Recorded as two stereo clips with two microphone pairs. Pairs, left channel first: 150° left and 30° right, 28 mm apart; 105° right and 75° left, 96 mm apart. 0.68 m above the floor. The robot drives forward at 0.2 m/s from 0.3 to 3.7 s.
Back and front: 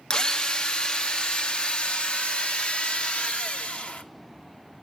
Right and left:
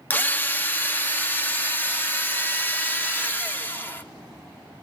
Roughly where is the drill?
Behind.